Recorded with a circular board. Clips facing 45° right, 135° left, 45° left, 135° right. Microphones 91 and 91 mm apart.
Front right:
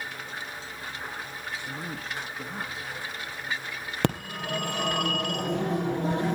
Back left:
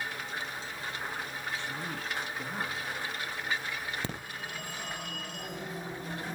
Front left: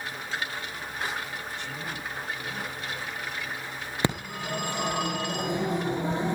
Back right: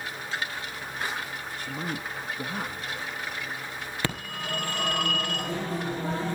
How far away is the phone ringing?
About 2.5 m.